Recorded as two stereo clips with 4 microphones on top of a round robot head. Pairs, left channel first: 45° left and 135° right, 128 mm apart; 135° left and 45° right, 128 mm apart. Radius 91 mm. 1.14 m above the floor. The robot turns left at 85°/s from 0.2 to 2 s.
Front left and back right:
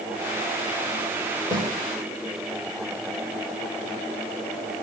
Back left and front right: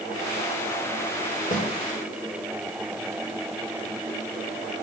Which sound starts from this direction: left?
A snare drum, at 1.5 s.